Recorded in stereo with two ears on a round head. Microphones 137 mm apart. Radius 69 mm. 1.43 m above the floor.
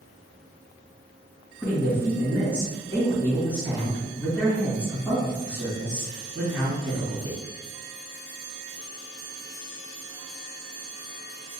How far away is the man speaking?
About 1.9 m.